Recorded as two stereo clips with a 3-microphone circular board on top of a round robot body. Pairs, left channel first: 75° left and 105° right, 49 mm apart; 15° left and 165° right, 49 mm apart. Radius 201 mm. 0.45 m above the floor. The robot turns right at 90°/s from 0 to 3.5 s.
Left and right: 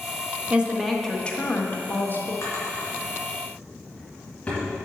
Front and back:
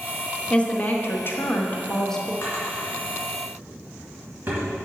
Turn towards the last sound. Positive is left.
turn(degrees=140)